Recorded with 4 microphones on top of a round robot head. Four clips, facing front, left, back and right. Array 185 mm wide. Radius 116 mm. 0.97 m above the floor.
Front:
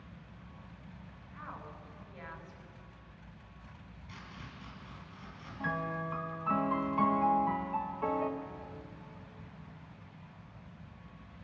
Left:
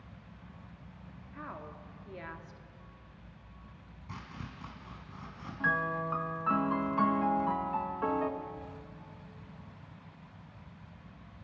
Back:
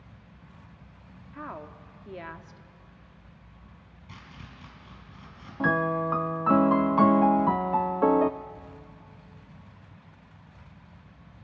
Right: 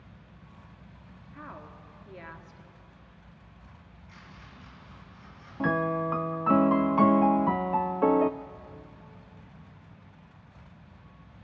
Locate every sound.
1.3 s a woman speaking: straight behind, 2.0 m
4.1 s chopping: 105° left, 5.5 m
5.6 s a piano: 140° right, 0.5 m